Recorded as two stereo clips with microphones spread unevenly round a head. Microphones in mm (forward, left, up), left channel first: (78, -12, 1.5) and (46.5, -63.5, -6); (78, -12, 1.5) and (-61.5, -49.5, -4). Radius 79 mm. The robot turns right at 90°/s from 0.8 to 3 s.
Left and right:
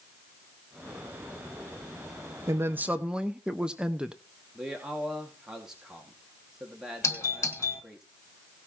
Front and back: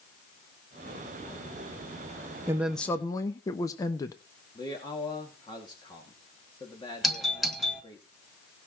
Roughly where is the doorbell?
Left.